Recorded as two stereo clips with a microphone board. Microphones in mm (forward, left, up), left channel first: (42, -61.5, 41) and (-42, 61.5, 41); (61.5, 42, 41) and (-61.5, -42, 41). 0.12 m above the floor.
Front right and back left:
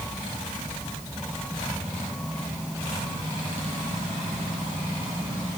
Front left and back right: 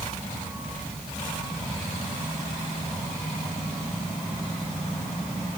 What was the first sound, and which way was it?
Only background noise.